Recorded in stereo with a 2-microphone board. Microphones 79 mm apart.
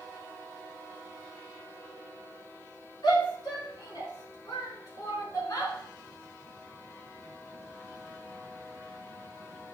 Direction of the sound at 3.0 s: 60° left (ahead or behind).